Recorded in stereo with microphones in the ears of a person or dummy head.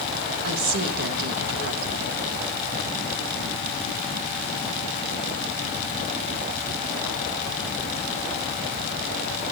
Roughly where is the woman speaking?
Right.